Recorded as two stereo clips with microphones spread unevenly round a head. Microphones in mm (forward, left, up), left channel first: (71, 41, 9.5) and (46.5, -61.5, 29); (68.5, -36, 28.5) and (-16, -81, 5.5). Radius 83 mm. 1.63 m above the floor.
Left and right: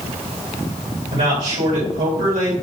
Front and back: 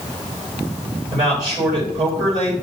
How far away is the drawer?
No drawer in this recording.